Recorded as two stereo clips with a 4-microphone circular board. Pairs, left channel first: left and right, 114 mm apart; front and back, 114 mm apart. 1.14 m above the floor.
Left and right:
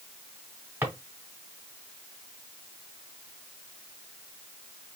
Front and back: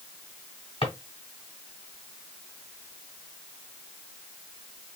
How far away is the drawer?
About 1.5 m.